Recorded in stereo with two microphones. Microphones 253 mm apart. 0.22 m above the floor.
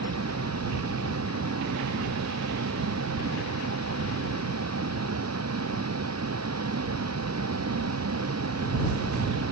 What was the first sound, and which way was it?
A vehicle, 85° right.